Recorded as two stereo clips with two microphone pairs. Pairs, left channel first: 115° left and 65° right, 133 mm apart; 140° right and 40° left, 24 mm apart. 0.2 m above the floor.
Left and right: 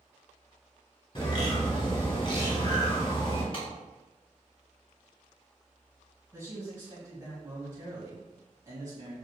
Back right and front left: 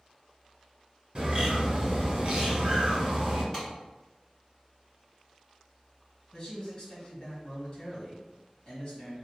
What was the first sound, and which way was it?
A bird, 75° left.